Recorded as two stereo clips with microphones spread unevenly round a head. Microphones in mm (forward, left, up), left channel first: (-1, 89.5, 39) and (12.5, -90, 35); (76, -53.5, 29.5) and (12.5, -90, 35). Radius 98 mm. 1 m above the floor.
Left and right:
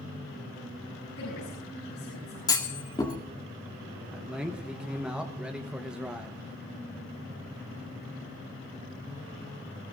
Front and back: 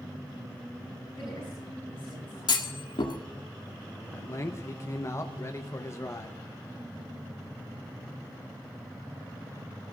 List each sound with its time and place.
1.2 s a woman speaking: 105° left, 8 m
2.5 s a clunk: 25° left, 2.0 m
4.1 s a man speaking: 5° right, 1.0 m